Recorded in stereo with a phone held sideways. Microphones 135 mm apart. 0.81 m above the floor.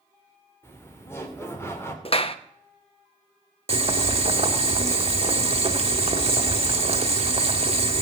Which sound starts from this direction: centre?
Laughter, at 0.6 s.